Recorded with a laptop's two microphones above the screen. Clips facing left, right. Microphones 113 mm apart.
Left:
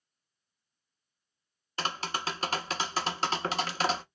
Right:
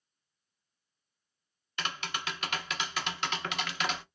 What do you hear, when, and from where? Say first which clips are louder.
1.8 s tapping: left 4 dB; 35° left (ahead or behind), 0.5 m